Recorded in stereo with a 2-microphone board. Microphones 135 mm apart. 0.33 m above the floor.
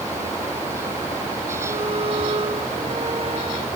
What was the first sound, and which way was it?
A violin, 45° right (ahead or behind).